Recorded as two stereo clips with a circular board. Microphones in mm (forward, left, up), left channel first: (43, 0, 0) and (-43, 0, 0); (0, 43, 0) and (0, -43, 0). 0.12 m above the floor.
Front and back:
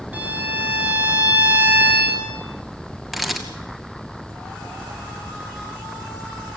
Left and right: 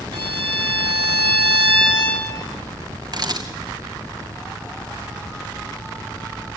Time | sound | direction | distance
0.1 | a violin | 110° right | 5 m
3.1 | a camera shutter | 90° right | 2 m